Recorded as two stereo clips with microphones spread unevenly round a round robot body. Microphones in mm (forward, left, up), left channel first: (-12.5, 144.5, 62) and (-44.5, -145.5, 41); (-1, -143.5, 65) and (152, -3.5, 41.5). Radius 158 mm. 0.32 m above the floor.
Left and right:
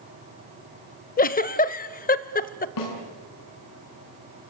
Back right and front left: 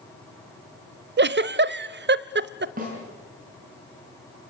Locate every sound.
1.2 s a giggle: 20° left, 0.6 m
2.8 s a snare drum: 95° left, 5.5 m